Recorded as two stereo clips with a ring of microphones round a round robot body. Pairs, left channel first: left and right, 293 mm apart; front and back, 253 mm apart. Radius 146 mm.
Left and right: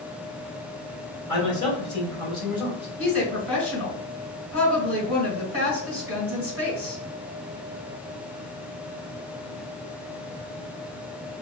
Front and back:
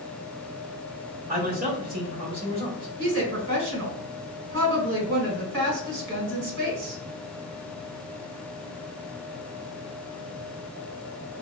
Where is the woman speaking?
155° left, 1.7 m.